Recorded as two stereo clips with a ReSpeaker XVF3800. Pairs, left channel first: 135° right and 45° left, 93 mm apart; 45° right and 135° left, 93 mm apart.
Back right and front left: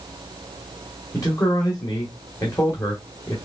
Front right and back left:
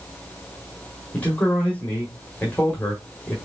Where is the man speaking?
110° right, 1.3 m.